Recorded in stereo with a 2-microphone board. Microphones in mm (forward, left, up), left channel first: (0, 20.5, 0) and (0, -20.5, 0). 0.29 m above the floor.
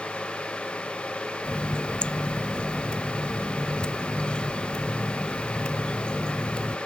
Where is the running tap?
25° left (ahead or behind).